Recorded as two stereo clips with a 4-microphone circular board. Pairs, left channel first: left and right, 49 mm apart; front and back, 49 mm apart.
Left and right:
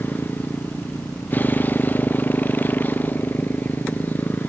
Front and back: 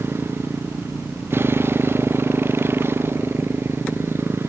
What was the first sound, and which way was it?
A motorcycle, 145° left.